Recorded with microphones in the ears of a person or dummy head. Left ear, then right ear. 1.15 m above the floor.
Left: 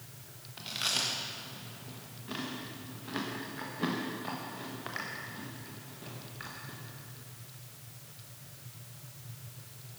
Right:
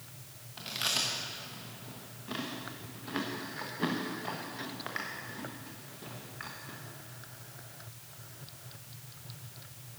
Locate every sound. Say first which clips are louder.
0.6 s chewing: even; 10° right (ahead or behind), 1.3 m